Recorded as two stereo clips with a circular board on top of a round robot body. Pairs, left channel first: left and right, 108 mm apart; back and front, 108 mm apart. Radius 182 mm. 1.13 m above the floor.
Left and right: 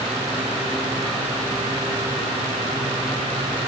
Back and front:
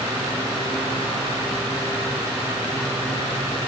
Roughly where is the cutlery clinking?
I don't hear cutlery clinking.